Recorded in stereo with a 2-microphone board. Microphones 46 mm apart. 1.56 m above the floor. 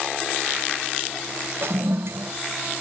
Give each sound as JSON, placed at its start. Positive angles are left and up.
{"t": 1.6, "sound": "a toilet flushing", "side_deg": -65, "distance_m": 0.7}